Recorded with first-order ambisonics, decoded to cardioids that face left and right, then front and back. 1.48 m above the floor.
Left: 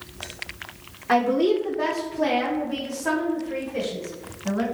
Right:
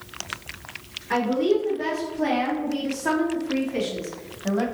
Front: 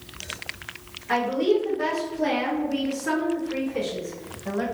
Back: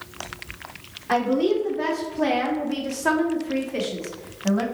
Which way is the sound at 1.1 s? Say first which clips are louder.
Left 2 dB, back 1 dB; 105° left.